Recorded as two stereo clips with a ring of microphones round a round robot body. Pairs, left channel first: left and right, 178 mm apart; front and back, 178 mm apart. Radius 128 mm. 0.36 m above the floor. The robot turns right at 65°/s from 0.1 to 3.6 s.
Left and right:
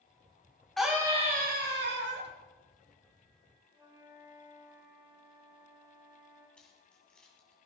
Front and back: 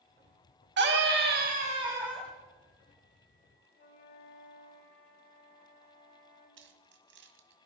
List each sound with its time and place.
0.8 s a scream: straight behind, 3 m; by 2.3 s 80° right, 3 m
3.7 s a flute: 25° right, 7.5 m
6.6 s keys jangling: 175° left, 1.8 m